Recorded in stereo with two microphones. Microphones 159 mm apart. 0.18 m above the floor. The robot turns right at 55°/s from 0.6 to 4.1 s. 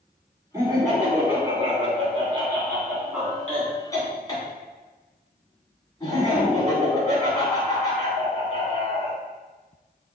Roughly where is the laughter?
Behind right.